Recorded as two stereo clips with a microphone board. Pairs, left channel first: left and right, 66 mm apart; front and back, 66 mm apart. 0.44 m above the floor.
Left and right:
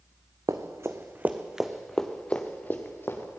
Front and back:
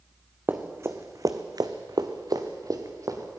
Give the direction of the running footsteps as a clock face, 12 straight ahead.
4 o'clock.